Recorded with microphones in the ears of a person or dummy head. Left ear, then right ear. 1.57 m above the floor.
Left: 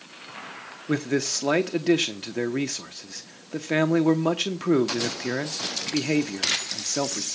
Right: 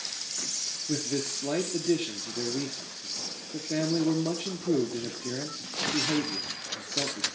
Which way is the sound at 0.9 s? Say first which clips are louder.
Left 9 dB; 50° left (ahead or behind).